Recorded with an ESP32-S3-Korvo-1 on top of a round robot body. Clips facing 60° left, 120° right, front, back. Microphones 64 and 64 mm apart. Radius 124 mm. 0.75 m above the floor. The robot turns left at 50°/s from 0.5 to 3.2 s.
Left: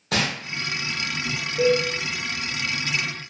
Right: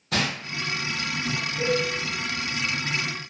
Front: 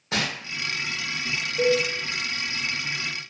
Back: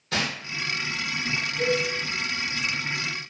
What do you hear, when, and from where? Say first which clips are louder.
0.1 s crumpling: left 2 dB, even; 70° left, 0.6 m
1.6 s a cowbell: left 6 dB, front 4 dB; 25° left, 1.4 m; by 1.8 s 15° left, 1.4 m